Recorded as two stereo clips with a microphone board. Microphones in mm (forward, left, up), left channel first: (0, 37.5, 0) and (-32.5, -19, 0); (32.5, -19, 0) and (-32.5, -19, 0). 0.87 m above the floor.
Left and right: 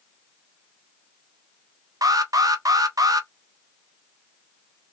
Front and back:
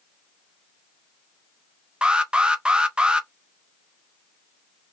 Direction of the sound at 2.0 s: 105° right.